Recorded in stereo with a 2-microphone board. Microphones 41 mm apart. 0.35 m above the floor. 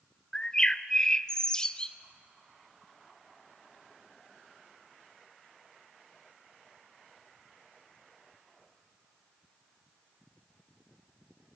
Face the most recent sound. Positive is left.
turn(degrees=20)  # may be behind; listen again after turning